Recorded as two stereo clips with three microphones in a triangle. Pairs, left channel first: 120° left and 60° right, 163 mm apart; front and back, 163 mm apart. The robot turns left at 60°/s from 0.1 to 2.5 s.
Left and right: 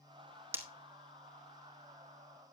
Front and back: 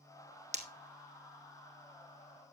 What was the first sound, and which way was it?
Breaking glass, 135° right.